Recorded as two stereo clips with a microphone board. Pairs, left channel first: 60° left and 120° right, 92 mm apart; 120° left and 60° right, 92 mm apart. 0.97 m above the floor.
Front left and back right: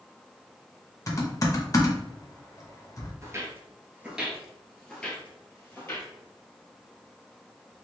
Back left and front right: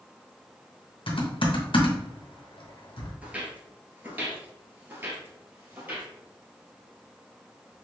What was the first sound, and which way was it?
Typing on a keyboard, 110° left.